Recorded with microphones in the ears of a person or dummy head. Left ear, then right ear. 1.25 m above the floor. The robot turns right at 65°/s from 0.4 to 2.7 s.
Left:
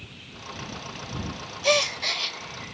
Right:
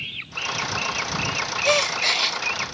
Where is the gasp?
160° left; by 2.4 s 150° right.